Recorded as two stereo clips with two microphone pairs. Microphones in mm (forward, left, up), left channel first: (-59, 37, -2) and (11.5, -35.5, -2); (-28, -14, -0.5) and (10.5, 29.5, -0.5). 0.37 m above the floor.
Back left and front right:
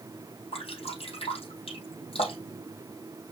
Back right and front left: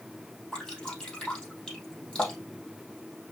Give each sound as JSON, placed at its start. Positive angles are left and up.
{"t": 0.5, "sound": "dripping", "azimuth_deg": 155, "distance_m": 3.5}